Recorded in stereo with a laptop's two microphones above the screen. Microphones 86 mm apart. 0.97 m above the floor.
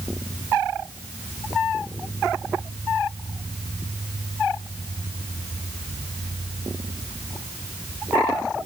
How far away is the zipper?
I don't hear a zipper.